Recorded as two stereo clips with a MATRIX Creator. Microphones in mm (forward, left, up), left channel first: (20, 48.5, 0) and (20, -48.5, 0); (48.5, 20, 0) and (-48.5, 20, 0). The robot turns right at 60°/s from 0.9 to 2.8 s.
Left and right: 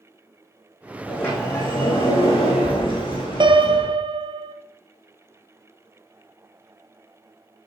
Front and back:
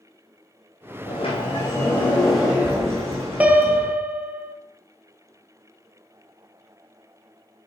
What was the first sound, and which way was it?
A sliding door, 10° left.